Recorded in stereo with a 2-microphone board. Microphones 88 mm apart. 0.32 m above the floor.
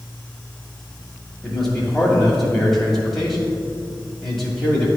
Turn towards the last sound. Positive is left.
turn(degrees=5)  # may be behind; listen again after turning